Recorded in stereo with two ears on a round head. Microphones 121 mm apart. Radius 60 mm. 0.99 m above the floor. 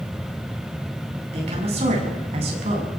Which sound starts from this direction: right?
A woman speaking, at 1.3 s.